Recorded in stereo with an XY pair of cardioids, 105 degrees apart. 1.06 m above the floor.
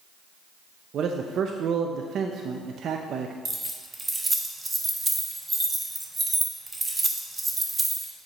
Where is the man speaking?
60° right, 0.6 m.